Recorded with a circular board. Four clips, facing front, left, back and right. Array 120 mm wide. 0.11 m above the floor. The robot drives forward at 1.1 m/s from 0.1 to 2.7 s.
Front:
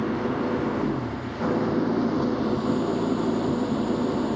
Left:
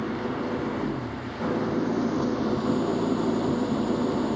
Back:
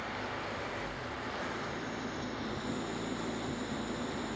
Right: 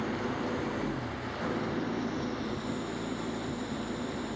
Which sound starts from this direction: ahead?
An engine running, at 0.0 s.